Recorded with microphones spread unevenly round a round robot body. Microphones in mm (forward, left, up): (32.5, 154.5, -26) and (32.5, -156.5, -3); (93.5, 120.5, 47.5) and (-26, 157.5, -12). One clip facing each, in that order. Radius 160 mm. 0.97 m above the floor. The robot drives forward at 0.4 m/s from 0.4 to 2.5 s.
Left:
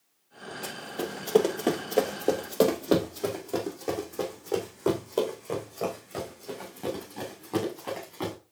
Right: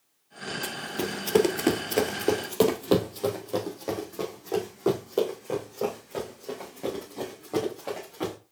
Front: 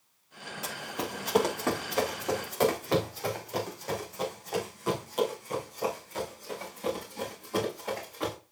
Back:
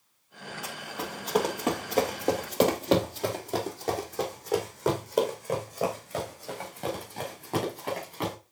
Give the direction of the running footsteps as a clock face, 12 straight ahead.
1 o'clock.